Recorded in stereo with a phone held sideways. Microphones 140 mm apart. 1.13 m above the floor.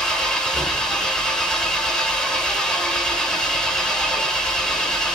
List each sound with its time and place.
0.0 s an engine running: 5° left (ahead or behind), 2 m